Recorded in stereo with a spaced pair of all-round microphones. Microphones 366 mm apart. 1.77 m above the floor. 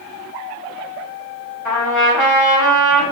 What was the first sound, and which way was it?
A trumpet, 5° right (ahead or behind).